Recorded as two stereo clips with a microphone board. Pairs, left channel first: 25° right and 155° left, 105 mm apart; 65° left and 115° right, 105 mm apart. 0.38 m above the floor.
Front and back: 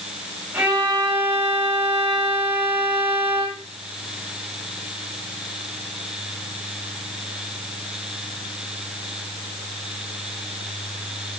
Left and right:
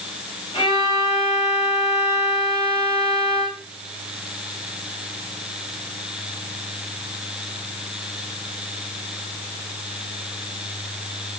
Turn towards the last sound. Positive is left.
turn(degrees=85)